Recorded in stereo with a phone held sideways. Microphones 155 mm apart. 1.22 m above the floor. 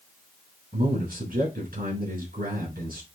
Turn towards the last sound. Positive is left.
turn(degrees=-80)